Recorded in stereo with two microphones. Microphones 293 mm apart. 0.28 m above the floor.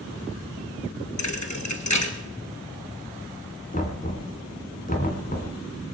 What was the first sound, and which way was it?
A thud, 65° left (ahead or behind).